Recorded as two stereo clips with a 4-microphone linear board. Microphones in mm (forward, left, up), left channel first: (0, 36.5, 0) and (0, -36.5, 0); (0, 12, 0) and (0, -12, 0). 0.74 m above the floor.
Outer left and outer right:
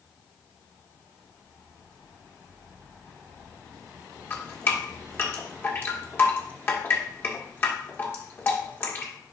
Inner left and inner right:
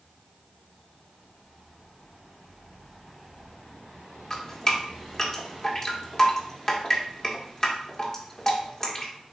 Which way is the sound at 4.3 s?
30° left (ahead or behind).